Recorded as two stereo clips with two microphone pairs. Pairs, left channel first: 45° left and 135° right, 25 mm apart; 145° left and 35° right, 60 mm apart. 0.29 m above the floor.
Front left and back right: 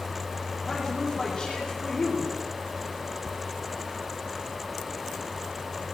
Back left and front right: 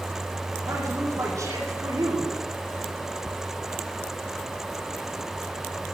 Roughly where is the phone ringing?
I don't hear a phone ringing.